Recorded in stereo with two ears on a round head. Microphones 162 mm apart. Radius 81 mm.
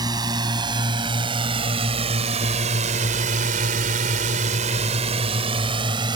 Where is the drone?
25° right (ahead or behind).